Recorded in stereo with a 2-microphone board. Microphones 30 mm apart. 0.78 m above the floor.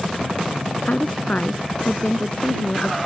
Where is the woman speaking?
55° left (ahead or behind).